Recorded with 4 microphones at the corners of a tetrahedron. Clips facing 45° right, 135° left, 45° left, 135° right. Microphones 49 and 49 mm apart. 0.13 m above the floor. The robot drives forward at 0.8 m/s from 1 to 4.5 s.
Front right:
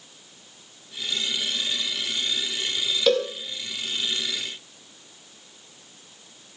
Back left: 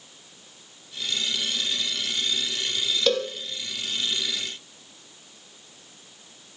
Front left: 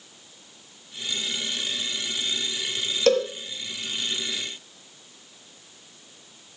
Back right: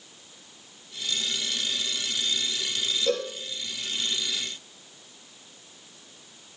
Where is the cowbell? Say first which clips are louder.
Front right 3 dB, front left 8 dB; 45° left, 4 m.